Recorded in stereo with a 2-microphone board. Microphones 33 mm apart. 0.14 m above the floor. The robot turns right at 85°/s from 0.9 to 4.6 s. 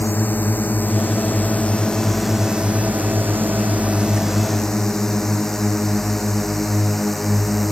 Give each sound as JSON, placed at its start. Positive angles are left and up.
{"t": 0.0, "sound": "a drone", "side_deg": 70}